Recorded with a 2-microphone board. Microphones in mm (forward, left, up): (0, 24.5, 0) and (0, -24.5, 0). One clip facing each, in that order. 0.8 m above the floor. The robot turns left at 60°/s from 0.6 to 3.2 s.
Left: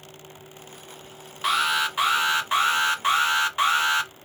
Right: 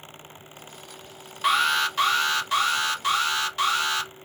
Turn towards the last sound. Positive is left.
turn(degrees=70)